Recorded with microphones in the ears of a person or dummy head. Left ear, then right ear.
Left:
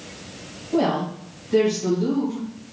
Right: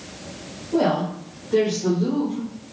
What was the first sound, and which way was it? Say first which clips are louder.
A woman speaking: right 1 dB; 5° left (ahead or behind).